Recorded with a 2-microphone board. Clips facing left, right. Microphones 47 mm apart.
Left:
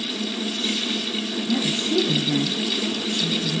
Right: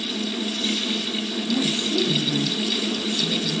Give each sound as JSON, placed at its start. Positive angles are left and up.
{"t": 1.5, "sound": "a woman speaking", "side_deg": 35, "distance_m": 3.5}